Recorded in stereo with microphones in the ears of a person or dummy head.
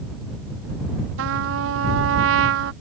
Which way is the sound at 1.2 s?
75° right (ahead or behind).